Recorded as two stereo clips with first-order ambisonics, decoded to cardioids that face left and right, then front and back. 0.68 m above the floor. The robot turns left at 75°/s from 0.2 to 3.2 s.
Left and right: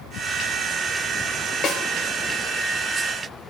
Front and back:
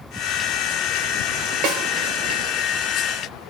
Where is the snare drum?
155° left, 2.5 m; by 1.8 s 140° left, 2.5 m.